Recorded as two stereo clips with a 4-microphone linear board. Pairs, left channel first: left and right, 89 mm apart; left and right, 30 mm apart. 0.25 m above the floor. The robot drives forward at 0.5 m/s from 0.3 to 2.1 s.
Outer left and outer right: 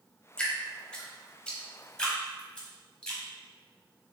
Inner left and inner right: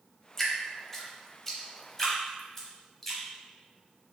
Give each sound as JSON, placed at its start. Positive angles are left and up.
{"t": 0.4, "sound": "dripping", "side_deg": 10, "distance_m": 0.8}